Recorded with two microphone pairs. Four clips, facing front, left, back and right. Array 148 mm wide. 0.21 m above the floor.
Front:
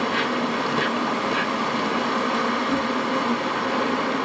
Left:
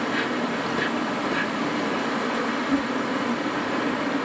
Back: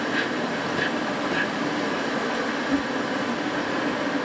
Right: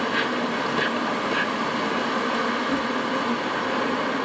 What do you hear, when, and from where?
0.0 s an insect: 20° right, 2 m